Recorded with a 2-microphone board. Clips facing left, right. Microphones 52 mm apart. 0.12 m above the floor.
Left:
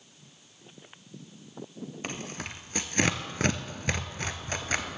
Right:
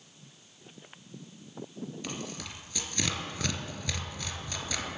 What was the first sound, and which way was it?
Tearing paper, 45° left (ahead or behind).